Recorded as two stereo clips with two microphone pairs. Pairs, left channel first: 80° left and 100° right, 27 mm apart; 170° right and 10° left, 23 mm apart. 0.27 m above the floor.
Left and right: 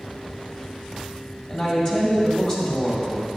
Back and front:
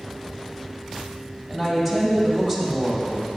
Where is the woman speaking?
130° left, 1.7 m.